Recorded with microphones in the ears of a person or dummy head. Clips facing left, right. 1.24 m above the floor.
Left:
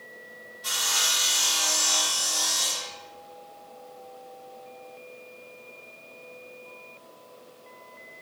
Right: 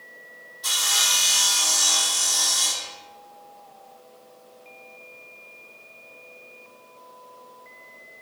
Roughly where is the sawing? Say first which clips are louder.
Right 2 dB; right.